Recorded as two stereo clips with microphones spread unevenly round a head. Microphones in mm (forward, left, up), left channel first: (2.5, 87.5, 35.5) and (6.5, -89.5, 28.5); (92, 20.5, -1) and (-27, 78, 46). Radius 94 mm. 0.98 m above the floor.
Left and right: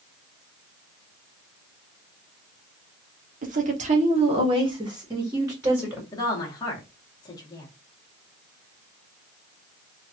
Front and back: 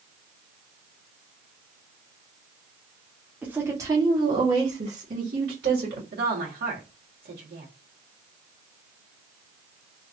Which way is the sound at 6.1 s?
160° left.